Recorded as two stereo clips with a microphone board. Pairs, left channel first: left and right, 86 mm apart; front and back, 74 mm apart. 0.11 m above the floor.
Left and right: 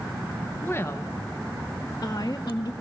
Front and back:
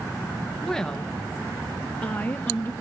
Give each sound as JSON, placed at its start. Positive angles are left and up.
{"t": 0.6, "sound": "a woman speaking", "azimuth_deg": 75, "distance_m": 1.3}